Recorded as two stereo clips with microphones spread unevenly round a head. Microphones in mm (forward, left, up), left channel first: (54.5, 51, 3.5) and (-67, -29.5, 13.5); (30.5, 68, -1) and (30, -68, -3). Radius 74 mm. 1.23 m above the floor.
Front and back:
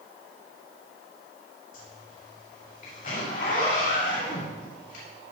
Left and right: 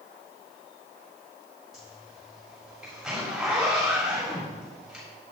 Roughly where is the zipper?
Ahead.